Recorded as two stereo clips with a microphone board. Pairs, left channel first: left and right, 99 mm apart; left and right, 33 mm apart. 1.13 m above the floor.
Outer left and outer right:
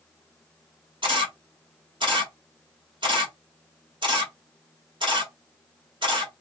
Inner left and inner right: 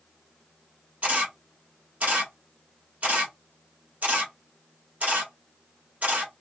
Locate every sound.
1.0 s a camera shutter: 55° right (ahead or behind), 1.8 m